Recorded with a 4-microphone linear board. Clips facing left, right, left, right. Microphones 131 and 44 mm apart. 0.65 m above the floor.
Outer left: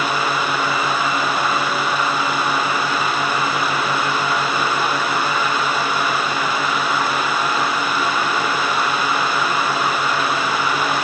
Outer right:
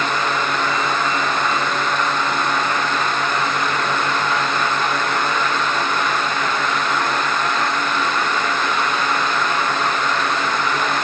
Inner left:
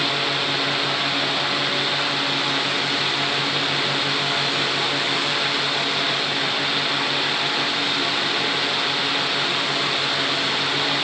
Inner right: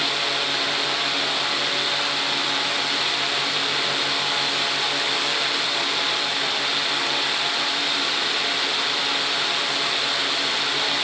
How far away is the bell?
No bell in this recording.